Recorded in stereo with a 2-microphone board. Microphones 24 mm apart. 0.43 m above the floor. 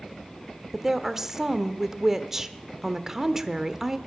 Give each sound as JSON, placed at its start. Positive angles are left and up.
{"t": 0.7, "sound": "a woman speaking", "side_deg": -15, "distance_m": 0.9}